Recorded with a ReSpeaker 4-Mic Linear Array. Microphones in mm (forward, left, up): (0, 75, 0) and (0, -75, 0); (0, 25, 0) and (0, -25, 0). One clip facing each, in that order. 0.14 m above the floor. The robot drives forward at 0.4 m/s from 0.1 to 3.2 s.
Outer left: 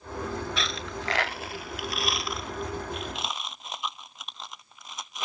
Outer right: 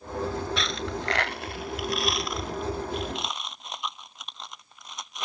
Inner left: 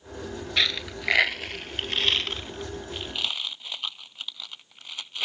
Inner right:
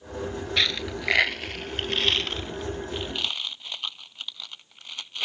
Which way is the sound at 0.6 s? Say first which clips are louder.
Outer right 3 dB, even; centre (ahead or behind).